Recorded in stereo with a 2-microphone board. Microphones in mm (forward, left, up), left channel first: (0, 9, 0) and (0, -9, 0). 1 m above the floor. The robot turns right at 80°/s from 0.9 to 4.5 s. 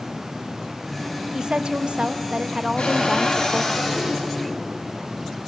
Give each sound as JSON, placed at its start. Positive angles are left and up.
{"t": 1.3, "sound": "a woman speaking", "azimuth_deg": -135, "distance_m": 1.0}
{"t": 2.8, "sound": "a cupboard door", "azimuth_deg": 100, "distance_m": 7.5}